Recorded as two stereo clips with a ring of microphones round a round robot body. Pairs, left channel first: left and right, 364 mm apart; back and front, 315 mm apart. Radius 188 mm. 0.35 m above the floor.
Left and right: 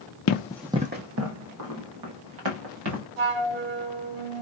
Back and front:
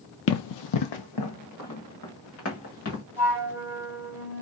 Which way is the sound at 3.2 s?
85° right.